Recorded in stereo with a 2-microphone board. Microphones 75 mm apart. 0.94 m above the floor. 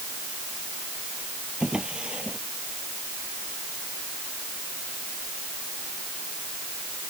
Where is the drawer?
10° right (ahead or behind).